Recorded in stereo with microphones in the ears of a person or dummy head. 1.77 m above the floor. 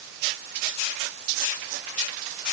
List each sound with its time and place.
Only background noise.